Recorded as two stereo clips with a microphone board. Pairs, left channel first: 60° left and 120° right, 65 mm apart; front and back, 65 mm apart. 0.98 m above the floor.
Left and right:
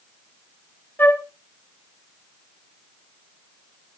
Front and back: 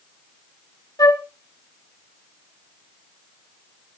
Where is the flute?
5° left, 1.4 m.